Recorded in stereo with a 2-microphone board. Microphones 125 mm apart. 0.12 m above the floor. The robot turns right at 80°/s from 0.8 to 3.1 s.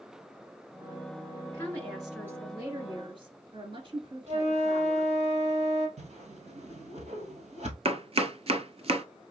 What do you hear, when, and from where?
1.5 s a woman speaking: 140° left, 2 m; by 5.1 s 95° right, 2 m
4.3 s a flute: 65° right (ahead or behind), 3.5 m
6.0 s a whoosh: 70° right (ahead or behind), 1.7 m
7.8 s chopping: 55° right (ahead or behind), 0.5 m